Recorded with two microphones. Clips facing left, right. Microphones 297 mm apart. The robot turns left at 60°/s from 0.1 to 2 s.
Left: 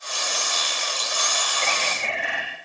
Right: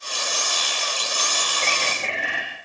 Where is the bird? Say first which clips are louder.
Right 1 dB; 10° right (ahead or behind), 8 m; by 2.4 s 35° right (ahead or behind), 8 m.